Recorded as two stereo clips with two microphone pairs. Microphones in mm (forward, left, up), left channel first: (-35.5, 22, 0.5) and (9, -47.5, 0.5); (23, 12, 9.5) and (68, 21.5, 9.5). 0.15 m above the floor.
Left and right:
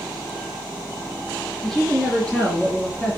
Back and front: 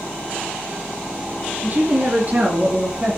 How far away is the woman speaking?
About 2.5 m.